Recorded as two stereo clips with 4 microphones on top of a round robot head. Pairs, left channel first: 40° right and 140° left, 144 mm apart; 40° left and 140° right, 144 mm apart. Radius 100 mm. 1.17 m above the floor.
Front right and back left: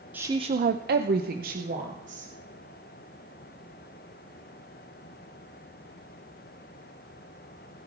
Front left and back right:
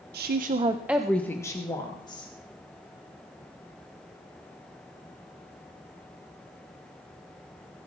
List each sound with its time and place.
0.1 s a woman speaking: 145° right, 0.8 m; by 2.3 s 100° left, 2 m